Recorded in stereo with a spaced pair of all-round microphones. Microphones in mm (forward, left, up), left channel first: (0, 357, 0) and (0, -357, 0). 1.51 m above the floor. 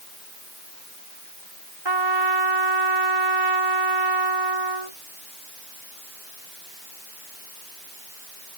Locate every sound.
1.9 s a trumpet: 35° right (ahead or behind)